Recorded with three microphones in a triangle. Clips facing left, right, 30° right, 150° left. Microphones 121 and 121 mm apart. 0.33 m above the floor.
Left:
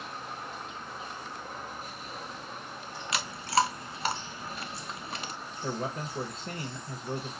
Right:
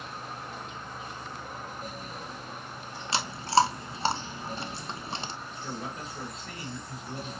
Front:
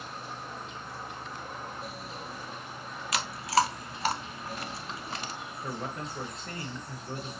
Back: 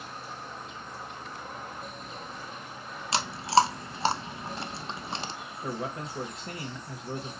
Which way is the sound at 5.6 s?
85° left.